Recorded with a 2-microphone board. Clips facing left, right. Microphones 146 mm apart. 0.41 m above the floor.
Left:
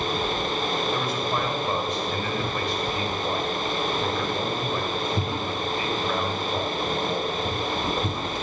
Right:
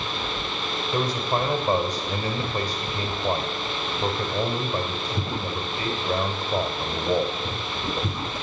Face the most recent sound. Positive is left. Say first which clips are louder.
# right 1 dB
turn(degrees=-35)  # may be behind; listen again after turning